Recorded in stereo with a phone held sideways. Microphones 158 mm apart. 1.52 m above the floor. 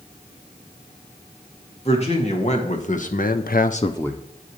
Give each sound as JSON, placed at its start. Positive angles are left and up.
{"t": 1.9, "sound": "a man speaking", "side_deg": 40, "distance_m": 2.5}